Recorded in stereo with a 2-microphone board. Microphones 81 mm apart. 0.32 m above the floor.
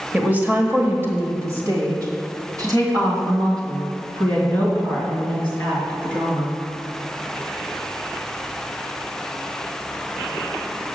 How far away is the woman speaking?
About 1.2 m.